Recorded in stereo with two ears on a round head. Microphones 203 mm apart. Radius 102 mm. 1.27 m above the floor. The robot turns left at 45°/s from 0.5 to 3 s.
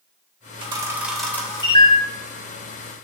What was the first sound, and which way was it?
A camera shutter, 25° right (ahead or behind).